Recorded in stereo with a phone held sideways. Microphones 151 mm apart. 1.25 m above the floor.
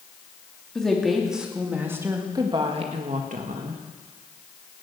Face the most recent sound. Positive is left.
turn(degrees=-70)  # may be behind; listen again after turning